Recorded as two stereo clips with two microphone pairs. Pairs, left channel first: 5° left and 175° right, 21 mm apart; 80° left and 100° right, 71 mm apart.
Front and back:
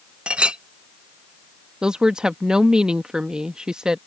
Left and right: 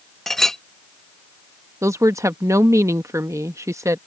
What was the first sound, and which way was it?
A clink, 170° left.